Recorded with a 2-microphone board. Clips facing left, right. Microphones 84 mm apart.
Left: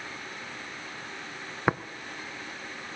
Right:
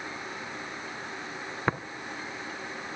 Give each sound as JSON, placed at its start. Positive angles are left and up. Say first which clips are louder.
{"t": 1.7, "sound": "tapping", "louder": "left 3 dB", "side_deg": 10, "distance_m": 0.6}